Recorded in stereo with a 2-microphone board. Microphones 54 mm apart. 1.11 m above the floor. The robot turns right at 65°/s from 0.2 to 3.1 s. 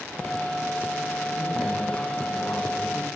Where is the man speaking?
25° right, 10 m; by 3.1 s 85° left, 10 m.